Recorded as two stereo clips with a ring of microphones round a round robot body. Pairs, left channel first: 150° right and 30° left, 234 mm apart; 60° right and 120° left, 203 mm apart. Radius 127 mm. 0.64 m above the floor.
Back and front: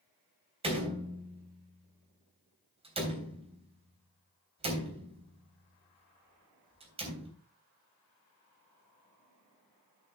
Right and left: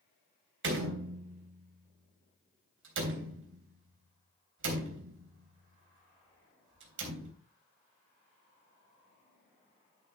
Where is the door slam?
95° left, 3.5 m.